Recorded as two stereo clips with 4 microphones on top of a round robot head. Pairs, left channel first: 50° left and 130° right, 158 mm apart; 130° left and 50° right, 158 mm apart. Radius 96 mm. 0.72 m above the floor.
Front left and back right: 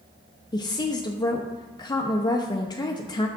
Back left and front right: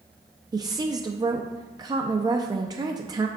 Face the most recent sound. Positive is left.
turn(degrees=0)